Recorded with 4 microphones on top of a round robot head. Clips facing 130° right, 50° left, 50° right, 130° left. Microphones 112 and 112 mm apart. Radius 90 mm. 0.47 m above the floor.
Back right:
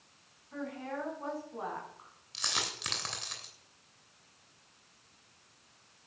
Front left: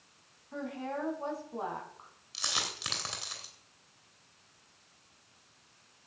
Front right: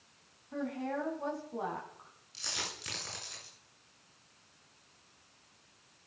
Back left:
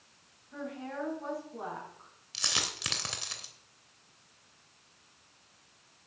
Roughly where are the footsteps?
I don't hear footsteps.